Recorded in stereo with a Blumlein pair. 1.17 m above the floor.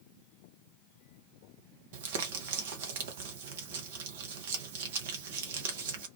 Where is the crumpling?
55° right, 0.7 m.